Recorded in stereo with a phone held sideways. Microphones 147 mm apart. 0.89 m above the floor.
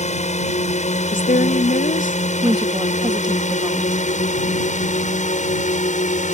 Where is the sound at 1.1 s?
65° left (ahead or behind).